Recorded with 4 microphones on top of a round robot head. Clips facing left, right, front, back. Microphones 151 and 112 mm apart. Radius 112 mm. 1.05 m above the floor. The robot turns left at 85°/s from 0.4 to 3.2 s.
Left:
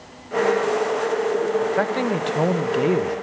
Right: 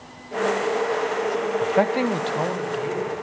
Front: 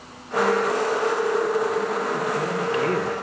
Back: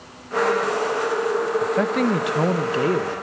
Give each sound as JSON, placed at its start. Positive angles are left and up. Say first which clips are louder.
{"t": 1.6, "sound": "a man speaking", "louder": "right 1 dB, back 3 dB", "azimuth_deg": -140, "distance_m": 0.8}